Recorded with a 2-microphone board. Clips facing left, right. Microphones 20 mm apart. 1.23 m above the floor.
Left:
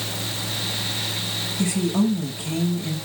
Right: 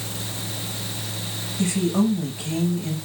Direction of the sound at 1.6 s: 10° right (ahead or behind).